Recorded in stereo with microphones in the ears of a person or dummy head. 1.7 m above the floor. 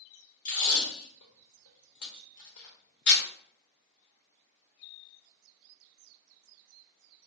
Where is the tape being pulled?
65° left (ahead or behind), 0.9 m.